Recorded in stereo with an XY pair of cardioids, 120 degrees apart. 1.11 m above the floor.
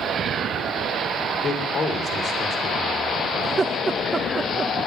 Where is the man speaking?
50° left, 2.5 m.